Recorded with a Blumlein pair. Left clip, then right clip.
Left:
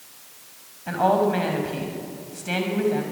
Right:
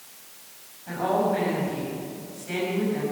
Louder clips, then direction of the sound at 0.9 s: Left 4 dB; 25° left.